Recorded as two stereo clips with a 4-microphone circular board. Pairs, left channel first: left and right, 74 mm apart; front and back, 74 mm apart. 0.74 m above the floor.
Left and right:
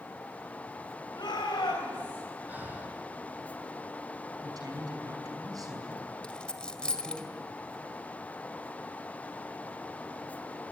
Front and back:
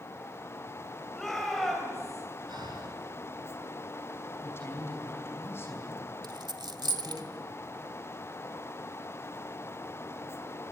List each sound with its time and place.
1.1 s a shout: 90° left, 3 m
2.5 s breathing: 160° right, 4 m
4.4 s a woman speaking: 55° right, 5.5 m
6.2 s a dropped coin: 165° left, 1.8 m